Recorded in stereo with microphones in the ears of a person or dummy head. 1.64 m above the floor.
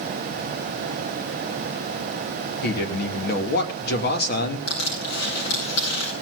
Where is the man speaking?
55° left (ahead or behind), 3 m.